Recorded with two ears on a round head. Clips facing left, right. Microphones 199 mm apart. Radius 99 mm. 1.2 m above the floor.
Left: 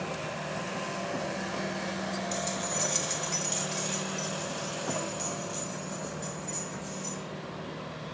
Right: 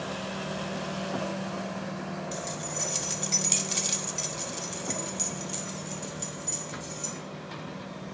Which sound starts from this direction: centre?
Keys jangling, at 2.3 s.